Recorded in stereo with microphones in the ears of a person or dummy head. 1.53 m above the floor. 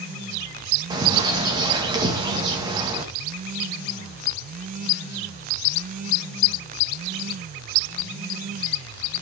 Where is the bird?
20° right (ahead or behind), 1.7 m.